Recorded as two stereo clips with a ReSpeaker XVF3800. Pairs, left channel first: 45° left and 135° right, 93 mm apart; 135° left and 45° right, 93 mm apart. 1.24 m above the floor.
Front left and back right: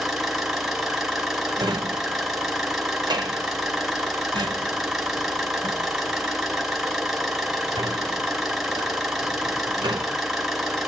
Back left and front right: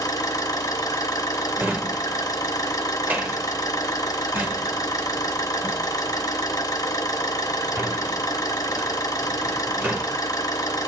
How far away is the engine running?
About 1.0 m.